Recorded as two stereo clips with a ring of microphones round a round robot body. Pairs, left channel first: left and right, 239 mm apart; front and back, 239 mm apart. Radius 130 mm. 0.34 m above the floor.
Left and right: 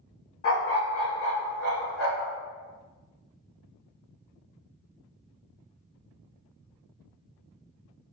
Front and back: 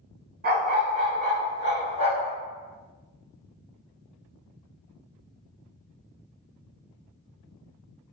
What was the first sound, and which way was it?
A dog barking, 125° left.